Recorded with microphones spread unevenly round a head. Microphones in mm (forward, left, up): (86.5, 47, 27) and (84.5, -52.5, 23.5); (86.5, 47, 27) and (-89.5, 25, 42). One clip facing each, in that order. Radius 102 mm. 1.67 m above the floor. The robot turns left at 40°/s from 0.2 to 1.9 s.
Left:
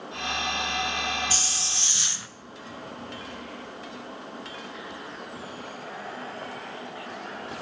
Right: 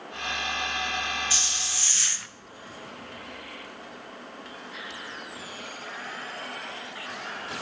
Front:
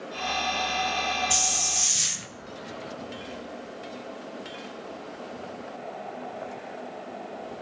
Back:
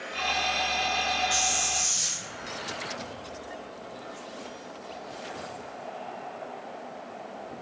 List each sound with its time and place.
1.3 s a hiss: 40° left, 0.7 m; by 2.3 s 15° left, 0.7 m